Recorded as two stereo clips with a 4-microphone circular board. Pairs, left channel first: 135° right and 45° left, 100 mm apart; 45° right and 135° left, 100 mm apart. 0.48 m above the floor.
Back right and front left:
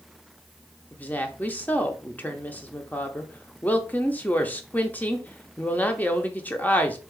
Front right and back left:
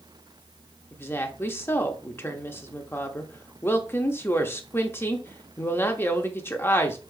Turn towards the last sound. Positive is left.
turn(degrees=-80)